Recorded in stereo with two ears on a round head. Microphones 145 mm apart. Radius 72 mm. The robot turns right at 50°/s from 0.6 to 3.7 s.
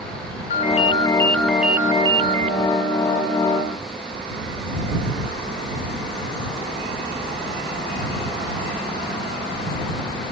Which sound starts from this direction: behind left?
A ringtone, at 0.5 s.